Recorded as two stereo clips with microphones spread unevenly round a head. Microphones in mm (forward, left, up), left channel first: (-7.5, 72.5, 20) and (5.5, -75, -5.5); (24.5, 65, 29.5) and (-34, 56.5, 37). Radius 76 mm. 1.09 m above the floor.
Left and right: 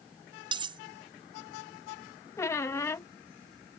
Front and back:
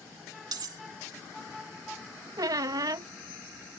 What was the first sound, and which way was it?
Cutlery clinking, 145° right.